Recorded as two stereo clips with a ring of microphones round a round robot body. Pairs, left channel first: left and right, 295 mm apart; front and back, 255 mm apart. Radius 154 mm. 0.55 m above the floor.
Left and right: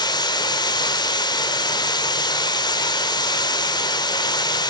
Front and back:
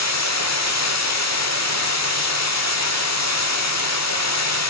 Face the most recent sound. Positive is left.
turn(degrees=15)